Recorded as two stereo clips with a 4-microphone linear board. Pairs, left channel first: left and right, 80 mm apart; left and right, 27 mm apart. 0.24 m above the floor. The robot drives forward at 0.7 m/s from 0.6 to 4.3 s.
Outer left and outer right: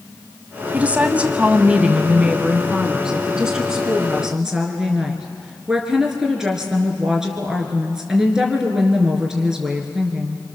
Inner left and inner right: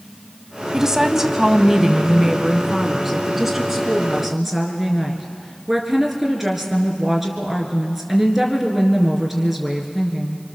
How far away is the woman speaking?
About 1.3 m.